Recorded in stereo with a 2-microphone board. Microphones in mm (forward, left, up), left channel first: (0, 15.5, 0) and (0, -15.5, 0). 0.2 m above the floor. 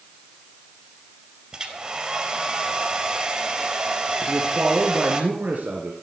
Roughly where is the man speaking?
Right.